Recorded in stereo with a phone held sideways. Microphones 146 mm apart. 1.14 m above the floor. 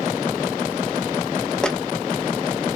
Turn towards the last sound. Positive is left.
turn(degrees=5)  # may be behind; listen again after turning